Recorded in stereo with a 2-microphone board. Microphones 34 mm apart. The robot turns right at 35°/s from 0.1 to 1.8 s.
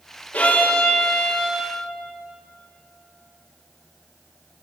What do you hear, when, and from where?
0.3 s a violin: 125° left, 4 m; by 1.7 s 175° left, 4 m